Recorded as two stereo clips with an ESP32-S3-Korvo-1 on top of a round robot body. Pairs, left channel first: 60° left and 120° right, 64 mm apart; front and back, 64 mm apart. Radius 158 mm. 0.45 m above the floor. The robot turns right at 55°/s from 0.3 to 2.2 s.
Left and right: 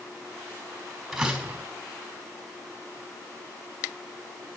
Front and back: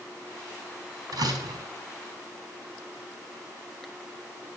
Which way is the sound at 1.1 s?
150° left.